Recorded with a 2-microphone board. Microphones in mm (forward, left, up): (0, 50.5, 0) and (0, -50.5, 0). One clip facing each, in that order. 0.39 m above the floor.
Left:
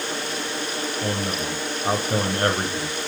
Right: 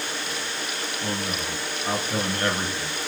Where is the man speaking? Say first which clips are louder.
Left 2 dB; 40° left (ahead or behind), 1.5 m.